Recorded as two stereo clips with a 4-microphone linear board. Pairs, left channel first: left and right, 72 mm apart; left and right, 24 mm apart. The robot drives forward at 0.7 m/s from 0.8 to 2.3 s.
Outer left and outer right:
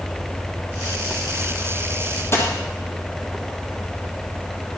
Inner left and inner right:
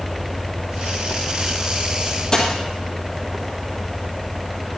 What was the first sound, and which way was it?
A dropped coin, 35° left (ahead or behind).